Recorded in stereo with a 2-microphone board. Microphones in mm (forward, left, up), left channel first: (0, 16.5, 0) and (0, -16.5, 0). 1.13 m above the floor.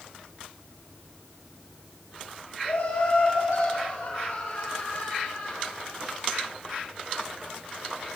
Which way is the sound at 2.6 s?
85° left.